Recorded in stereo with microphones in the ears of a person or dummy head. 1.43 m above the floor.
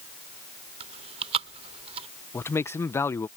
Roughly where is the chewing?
Right.